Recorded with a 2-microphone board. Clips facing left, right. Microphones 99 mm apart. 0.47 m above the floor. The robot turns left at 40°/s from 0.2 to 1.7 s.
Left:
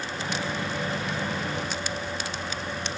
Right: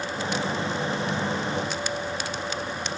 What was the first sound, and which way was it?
Only background noise.